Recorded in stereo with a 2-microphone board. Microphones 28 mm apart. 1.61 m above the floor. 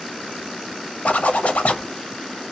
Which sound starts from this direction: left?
A zipper, at 1.1 s.